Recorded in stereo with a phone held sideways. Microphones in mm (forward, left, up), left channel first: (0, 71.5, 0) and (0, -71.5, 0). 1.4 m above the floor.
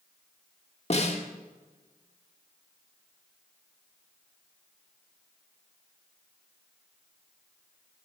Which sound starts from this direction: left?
A snare drum, at 0.9 s.